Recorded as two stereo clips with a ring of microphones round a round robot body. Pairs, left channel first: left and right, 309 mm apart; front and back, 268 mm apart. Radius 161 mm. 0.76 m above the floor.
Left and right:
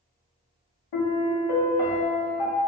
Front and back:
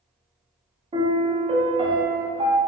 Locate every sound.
0.9 s a piano: 110° left, 0.8 m